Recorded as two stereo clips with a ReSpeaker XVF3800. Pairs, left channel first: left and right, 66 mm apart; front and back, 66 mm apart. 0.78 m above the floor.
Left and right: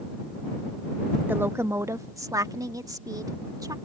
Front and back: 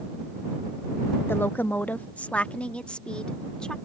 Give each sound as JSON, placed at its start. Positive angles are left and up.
{"t": 1.3, "sound": "a woman speaking", "azimuth_deg": -40}